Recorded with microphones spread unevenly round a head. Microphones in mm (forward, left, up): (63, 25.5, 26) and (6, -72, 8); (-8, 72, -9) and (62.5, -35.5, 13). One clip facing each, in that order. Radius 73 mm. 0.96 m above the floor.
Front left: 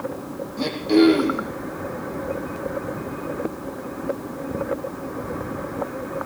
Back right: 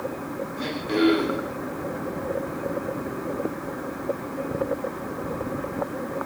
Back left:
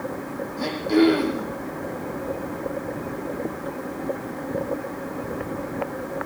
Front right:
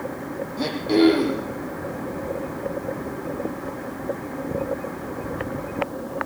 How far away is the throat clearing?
About 6 m.